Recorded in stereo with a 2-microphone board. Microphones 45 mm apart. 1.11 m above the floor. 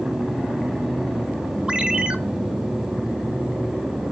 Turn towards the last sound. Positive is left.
turn(degrees=-30)  # may be behind; listen again after turning